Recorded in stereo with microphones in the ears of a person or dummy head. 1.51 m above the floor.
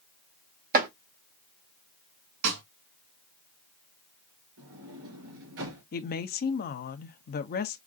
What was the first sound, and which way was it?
Chopping, 50° right (ahead or behind).